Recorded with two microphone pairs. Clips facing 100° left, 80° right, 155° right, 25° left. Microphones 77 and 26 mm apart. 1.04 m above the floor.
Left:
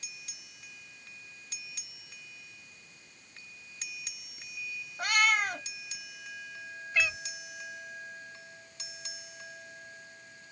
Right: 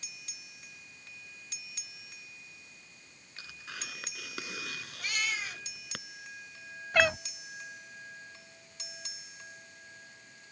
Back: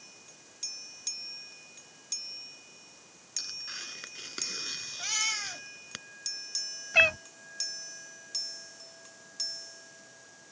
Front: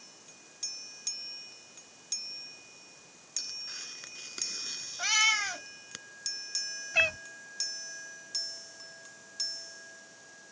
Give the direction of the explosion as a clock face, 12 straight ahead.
I don't hear an explosion.